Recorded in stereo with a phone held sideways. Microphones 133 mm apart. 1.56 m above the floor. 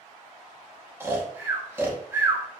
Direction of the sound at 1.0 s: 15° right (ahead or behind).